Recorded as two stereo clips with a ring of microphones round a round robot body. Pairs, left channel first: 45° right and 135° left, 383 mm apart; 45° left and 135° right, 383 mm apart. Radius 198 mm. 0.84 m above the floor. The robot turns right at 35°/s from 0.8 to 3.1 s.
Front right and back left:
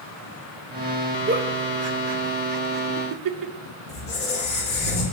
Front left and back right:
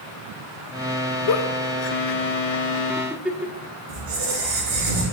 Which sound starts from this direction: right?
A squeak, at 3.9 s.